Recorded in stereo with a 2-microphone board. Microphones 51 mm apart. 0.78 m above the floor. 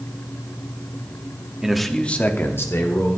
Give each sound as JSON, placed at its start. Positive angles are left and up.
{"t": 1.6, "sound": "a man speaking", "side_deg": -10, "distance_m": 1.2}